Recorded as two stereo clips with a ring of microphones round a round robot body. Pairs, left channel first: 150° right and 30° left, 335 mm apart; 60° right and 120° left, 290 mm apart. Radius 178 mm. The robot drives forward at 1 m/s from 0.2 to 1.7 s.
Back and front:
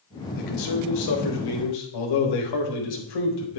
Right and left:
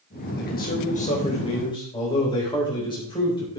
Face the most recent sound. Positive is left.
turn(degrees=-135)